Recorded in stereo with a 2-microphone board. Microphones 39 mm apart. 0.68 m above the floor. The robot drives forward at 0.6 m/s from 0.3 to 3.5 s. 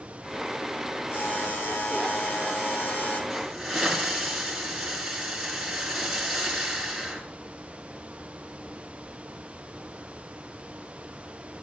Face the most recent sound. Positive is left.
turn(degrees=-5)  # may be behind; listen again after turning